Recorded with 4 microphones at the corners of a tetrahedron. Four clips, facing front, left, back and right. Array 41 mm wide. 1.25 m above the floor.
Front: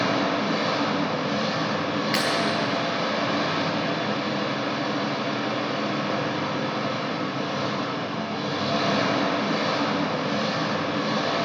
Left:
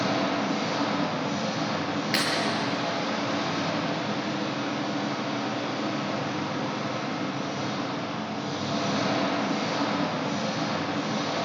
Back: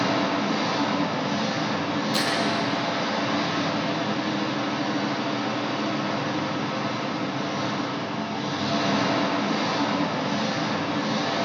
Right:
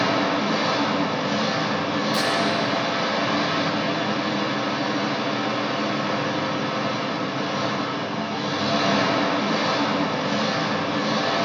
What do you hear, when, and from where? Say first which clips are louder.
0.0 s an engine running: right 5 dB, even; 60° right, 4.5 m
2.1 s breaking glass: right 1 dB, front 1 dB; 45° left, 8.5 m